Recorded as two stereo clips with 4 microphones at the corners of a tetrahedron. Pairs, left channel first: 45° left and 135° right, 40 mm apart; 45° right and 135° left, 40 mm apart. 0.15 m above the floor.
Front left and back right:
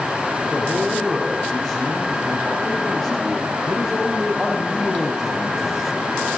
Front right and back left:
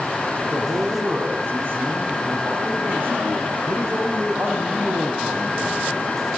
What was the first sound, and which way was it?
A man speaking, 130° left.